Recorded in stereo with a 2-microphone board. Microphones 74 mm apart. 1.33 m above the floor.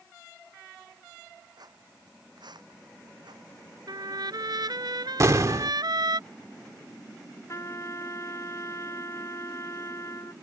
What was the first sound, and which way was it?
Footsteps, 65° right (ahead or behind).